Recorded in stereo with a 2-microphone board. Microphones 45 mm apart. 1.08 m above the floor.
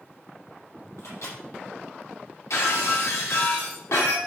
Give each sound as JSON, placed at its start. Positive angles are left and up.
{"t": 1.0, "sound": "a microwave", "side_deg": 80, "distance_m": 5.0}
{"t": 2.5, "sound": "breaking glass", "side_deg": 80, "distance_m": 4.0}